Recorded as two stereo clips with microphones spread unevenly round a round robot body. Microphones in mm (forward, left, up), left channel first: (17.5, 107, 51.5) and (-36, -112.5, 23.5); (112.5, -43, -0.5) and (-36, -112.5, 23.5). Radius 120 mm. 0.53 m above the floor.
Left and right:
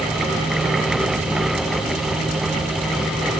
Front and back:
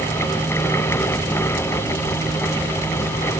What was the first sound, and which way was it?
Only background noise.